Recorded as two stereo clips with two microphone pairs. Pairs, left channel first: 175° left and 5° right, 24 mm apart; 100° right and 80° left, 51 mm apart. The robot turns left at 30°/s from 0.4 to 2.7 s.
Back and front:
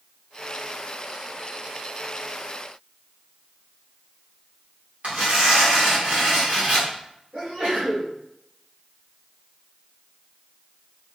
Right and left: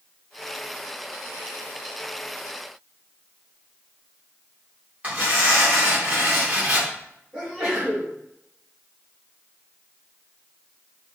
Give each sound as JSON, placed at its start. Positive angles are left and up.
{"t": 5.0, "sound": "tearing paper", "azimuth_deg": 20, "distance_m": 4.0}
{"t": 7.3, "sound": "a sneeze", "azimuth_deg": 5, "distance_m": 4.0}